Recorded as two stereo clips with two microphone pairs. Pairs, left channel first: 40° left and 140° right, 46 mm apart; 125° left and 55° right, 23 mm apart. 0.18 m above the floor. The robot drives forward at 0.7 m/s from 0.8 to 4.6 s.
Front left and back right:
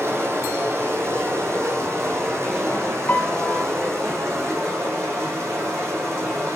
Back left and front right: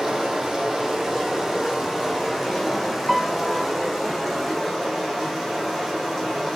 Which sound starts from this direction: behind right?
Running water, at 0.0 s.